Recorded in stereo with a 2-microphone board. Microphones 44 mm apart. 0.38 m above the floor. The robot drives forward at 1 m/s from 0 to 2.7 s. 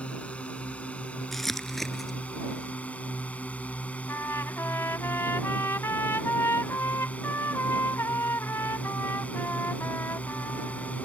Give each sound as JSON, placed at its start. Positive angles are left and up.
{"t": 0.0, "sound": "a drone", "side_deg": 30}
{"t": 1.3, "sound": "crumpling", "side_deg": 5}
{"t": 4.1, "sound": "a trumpet", "side_deg": 85}